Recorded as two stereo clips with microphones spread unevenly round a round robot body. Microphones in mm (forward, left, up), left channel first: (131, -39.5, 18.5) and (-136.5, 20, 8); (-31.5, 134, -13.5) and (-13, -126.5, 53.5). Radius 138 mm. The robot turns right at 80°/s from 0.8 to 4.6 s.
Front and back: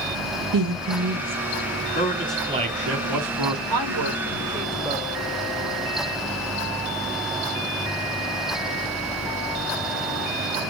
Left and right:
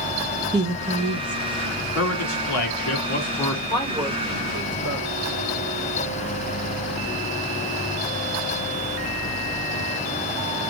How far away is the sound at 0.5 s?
About 1.1 m.